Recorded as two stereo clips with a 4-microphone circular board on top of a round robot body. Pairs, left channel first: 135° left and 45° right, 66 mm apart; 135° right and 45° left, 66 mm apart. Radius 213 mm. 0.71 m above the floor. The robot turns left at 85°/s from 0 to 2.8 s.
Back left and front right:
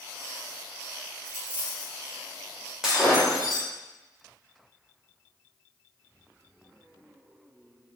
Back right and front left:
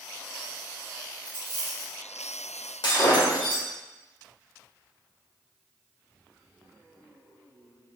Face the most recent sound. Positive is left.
turn(degrees=-125)